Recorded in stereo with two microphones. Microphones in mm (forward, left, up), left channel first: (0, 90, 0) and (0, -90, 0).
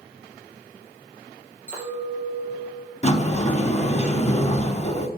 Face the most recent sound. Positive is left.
turn(degrees=40)  # may be behind; listen again after turning